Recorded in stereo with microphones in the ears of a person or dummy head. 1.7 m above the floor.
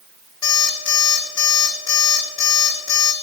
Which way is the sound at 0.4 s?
30° left (ahead or behind).